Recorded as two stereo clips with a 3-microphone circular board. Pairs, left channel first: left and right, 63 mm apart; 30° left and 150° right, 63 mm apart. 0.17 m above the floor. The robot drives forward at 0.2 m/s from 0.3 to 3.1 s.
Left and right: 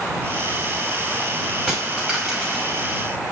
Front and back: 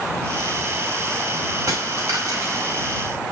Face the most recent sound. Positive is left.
turn(degrees=175)